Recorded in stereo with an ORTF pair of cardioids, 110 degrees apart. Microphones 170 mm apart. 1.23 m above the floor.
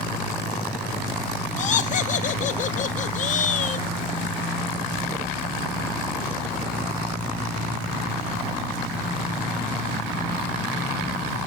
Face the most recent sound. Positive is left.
turn(degrees=45)